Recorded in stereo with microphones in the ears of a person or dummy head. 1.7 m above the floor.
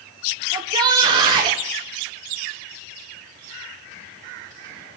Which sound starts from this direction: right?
A shout, at 0.5 s.